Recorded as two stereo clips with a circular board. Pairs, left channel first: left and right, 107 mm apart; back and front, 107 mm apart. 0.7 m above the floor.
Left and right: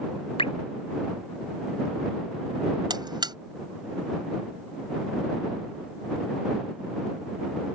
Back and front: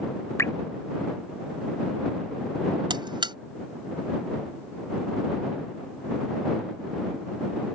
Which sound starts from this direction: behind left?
Dripping, at 0.4 s.